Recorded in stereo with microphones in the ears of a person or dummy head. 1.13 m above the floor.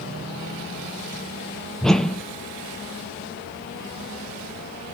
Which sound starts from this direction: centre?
A whoosh, at 1.8 s.